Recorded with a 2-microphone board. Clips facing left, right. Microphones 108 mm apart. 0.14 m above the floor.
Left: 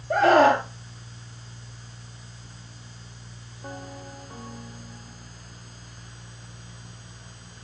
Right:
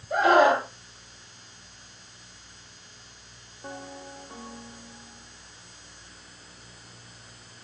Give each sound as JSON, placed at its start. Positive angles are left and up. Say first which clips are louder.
{"t": 0.1, "sound": "a scream", "louder": "left 2 dB", "side_deg": 65, "distance_m": 2.5}